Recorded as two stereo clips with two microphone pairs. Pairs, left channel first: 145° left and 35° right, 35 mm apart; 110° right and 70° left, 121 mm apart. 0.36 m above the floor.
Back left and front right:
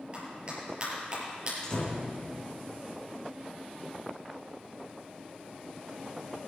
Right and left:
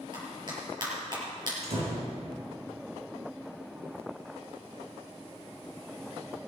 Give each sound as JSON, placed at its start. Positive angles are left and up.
{"t": 0.1, "sound": "a clap", "azimuth_deg": 25, "distance_m": 6.5}
{"t": 1.6, "sound": "a door slam", "azimuth_deg": 80, "distance_m": 3.5}